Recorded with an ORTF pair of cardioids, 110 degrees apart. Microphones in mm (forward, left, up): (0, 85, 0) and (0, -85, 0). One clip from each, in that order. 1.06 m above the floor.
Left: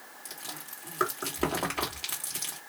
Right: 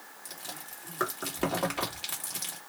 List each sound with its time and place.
0.2 s chewing: 5° left, 1.5 m